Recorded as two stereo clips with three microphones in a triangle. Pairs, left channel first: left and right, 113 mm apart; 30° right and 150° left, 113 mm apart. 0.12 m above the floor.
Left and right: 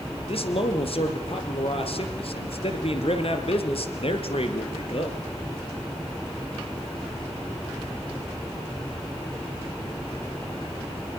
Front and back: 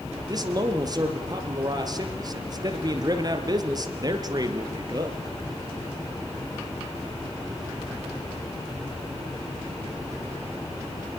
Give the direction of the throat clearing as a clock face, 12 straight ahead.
No throat clearing in this recording.